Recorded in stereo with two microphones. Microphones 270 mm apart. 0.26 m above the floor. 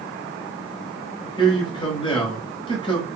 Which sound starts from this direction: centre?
A man speaking, at 1.4 s.